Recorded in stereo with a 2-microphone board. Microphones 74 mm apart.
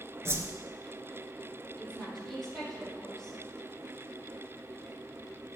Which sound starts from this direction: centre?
A woman speaking, at 1.8 s.